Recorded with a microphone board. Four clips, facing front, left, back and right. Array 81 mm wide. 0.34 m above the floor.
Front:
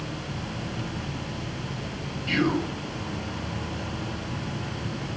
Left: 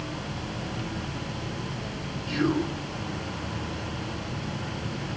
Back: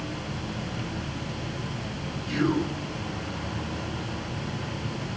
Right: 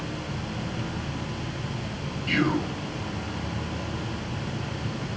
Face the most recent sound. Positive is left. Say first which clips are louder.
# right 1 dB, front 1 dB
turn(degrees=-55)